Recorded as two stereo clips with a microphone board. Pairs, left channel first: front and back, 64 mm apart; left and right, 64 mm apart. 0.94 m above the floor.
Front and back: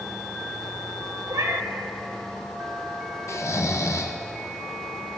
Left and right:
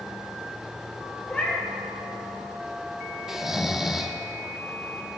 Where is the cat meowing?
160° left, 1.5 m.